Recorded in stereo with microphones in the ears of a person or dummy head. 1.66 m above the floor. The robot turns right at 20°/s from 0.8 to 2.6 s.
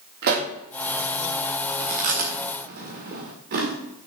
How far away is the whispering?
No whispering in this recording.